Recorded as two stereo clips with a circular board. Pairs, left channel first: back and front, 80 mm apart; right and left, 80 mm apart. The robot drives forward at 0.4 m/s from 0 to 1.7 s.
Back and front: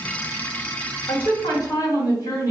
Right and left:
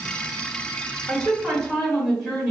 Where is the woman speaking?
Straight behind, 1.1 m.